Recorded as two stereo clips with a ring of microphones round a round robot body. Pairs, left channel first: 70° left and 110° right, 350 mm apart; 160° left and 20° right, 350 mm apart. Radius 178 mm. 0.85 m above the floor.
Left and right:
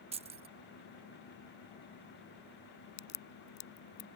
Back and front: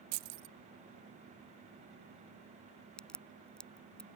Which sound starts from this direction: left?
A crack, at 3.0 s.